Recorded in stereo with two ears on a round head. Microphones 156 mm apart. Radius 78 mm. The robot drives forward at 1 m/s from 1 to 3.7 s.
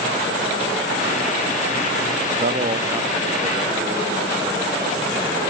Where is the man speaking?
50° right (ahead or behind), 0.6 m; by 5.4 s 15° right (ahead or behind), 1.8 m.